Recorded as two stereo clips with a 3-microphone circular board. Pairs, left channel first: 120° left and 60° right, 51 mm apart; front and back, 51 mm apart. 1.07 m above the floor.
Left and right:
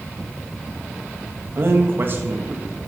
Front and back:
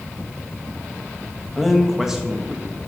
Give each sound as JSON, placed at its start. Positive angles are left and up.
{"t": 1.6, "sound": "a man speaking", "azimuth_deg": -90, "distance_m": 1.8}